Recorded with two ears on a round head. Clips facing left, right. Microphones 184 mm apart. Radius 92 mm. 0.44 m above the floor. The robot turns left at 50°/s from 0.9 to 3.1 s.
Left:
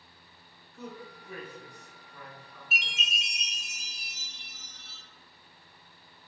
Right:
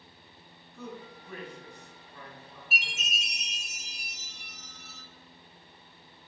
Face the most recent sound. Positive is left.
turn(degrees=25)  # may be behind; listen again after turning